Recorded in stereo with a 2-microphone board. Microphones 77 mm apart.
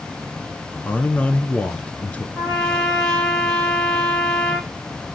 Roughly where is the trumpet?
Centre.